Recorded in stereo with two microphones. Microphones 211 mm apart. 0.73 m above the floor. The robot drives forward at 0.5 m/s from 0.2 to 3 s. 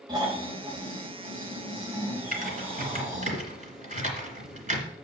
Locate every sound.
0.1 s snoring: 20° right (ahead or behind), 2.5 m; by 3.3 s 10° right (ahead or behind), 4 m
2.3 s typing on a keyboard: 40° right (ahead or behind), 2 m; by 4.8 s 35° right (ahead or behind), 2.5 m